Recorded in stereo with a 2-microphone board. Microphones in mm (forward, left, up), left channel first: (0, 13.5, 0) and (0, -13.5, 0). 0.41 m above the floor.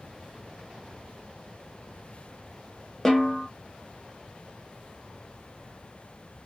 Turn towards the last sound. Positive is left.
turn(degrees=15)  # may be behind; listen again after turning